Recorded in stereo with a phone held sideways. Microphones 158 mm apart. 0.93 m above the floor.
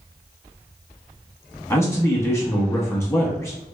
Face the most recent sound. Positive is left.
turn(degrees=15)  # may be behind; listen again after turning